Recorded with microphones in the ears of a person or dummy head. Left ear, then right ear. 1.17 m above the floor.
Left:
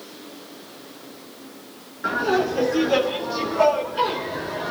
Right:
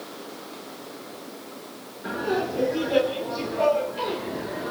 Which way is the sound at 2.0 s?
60° left (ahead or behind).